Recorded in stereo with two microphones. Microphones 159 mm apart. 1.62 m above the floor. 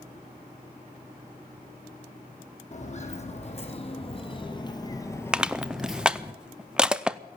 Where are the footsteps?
50° left (ahead or behind), 3.5 m; by 6.3 s 15° right (ahead or behind), 1.6 m.